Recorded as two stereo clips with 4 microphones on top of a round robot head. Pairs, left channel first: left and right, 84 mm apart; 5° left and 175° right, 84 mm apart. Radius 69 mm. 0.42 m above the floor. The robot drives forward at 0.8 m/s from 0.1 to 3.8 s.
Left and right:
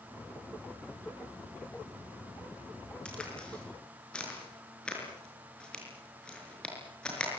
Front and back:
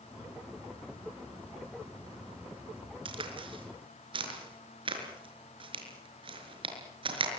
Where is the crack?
170° left, 5 m.